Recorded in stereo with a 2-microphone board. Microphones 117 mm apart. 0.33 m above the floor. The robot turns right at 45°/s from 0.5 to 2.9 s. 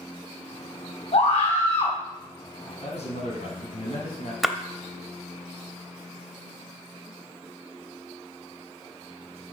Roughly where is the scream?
Left.